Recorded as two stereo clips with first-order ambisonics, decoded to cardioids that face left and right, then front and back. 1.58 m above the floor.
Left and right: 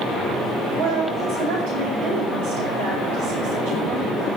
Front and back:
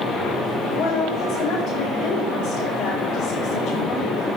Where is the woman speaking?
75° right, 9 m.